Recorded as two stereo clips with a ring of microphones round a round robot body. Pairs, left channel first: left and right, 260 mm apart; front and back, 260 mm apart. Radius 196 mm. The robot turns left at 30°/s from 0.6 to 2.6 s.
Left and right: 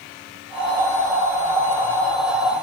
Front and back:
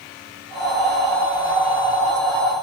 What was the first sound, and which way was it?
Only background noise.